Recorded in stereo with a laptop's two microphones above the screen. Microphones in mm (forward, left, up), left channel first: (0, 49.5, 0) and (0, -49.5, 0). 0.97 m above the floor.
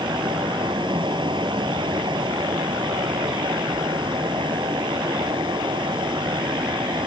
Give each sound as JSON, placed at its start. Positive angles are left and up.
{"t": 0.0, "sound": "a fan", "side_deg": -55}